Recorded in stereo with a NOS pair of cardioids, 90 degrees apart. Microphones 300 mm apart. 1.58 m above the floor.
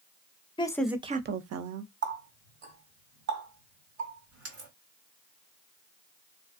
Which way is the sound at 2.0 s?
70° right.